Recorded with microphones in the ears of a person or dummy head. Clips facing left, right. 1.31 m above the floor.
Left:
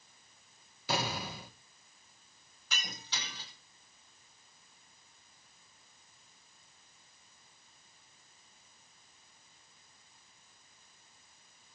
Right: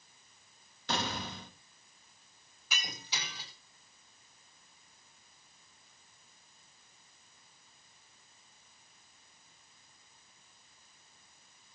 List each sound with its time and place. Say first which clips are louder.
0.9 s an explosion: left 1 dB; 10° left (ahead or behind), 1.7 m
2.7 s breaking glass: right 1 dB; 10° right (ahead or behind), 5 m